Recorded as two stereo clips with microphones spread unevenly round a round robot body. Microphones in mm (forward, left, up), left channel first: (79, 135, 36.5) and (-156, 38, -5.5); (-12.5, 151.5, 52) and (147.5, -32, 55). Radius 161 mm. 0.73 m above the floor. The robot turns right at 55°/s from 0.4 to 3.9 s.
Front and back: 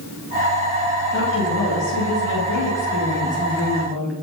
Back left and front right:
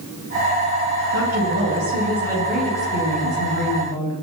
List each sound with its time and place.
1.1 s a woman speaking: 40° right, 10 m; by 4.1 s 115° left, 10 m